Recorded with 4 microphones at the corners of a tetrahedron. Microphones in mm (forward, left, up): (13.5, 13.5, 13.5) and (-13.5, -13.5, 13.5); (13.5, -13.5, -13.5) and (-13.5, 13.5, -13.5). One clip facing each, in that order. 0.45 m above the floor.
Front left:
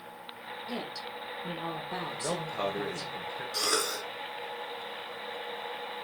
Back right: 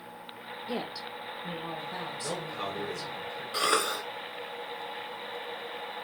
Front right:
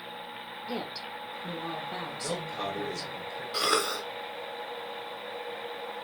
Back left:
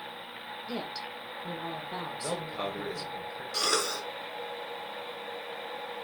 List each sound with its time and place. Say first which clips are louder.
0.7 s a woman speaking: back right 3 dB, front right 1 dB; 125° right, 0.8 m; by 3.2 s 50° left, 2 m
2.2 s a man speaking: front left 5 dB, even; 55° left, 1.7 m
3.5 s a cough: back right 4 dB, front right 2 dB; 105° right, 0.8 m